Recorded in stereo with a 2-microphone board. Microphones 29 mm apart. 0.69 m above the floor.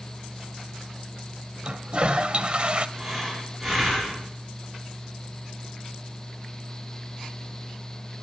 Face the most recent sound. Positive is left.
turn(degrees=0)  # may be behind; listen again after turning